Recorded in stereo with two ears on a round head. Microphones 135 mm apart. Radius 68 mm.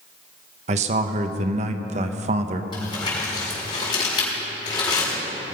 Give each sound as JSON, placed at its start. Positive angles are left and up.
{"t": 0.7, "sound": "a man speaking", "side_deg": -45, "distance_m": 0.8}
{"t": 2.7, "sound": "crumpling", "side_deg": 30, "distance_m": 5.5}